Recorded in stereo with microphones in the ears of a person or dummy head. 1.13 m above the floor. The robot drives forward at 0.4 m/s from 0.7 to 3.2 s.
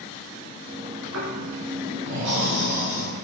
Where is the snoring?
75° right (ahead or behind), 5.5 m; by 3.0 s 70° right (ahead or behind), 6 m.